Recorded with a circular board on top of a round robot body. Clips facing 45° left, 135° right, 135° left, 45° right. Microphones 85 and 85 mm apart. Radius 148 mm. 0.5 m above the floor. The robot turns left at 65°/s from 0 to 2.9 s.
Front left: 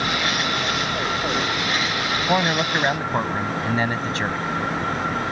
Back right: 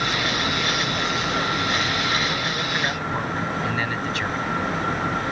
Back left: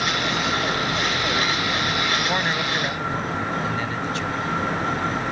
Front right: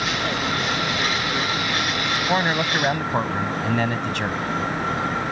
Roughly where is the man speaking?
Ahead left.